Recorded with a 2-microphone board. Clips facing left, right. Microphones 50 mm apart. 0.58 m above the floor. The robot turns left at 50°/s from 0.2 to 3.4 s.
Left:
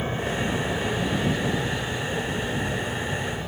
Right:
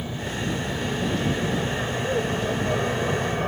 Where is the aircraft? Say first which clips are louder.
Left 3 dB; 45° left; by 3.5 s 115° right.